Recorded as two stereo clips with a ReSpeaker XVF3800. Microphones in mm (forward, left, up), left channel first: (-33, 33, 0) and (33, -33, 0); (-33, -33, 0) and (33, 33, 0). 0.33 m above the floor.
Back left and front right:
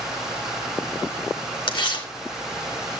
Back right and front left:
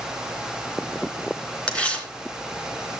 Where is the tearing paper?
150° left, 3 m.